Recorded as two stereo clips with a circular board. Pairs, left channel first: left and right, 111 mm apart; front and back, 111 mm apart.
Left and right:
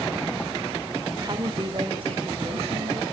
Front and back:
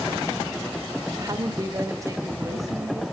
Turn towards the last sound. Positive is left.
turn(degrees=-120)